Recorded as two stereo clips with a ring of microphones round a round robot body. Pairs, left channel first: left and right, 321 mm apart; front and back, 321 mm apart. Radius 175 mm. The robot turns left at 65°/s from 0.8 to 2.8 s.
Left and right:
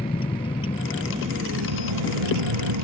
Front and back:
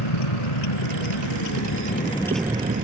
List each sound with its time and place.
0.0 s a vehicle: 15° left; by 2.9 s 115° right